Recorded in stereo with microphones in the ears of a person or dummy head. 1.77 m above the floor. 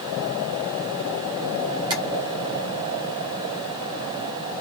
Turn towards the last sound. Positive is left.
turn(degrees=-20)  # may be behind; listen again after turning